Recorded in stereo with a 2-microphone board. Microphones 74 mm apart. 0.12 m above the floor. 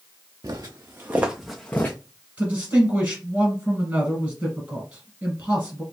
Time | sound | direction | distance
0.4 | footsteps | 50° right (ahead or behind) | 0.9 m
2.4 | a man speaking | 15° right (ahead or behind) | 1.9 m